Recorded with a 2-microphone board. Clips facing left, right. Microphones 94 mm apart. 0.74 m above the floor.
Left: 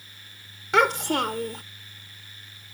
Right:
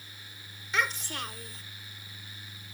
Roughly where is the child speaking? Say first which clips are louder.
Left 11 dB; left.